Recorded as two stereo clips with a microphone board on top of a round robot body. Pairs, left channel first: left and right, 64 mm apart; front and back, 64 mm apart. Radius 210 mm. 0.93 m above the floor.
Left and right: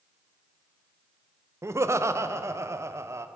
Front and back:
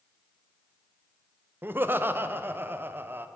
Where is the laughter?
130° right, 0.6 m.